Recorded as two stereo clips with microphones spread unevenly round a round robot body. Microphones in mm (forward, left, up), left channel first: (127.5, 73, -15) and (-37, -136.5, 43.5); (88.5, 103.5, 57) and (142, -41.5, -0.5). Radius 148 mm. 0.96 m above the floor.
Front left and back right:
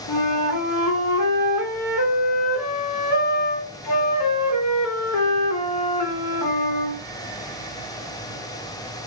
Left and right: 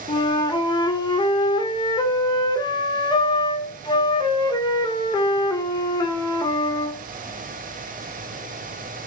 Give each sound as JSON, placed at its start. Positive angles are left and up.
{"t": 0.1, "sound": "a flute", "azimuth_deg": 40, "distance_m": 0.6}